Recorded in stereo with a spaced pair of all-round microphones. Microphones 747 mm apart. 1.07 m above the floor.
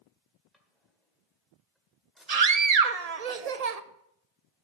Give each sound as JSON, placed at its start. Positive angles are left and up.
{"t": 0.5, "sound": "a drawer", "side_deg": 0, "distance_m": 1.6}
{"t": 2.3, "sound": "a scream", "side_deg": -55, "distance_m": 0.8}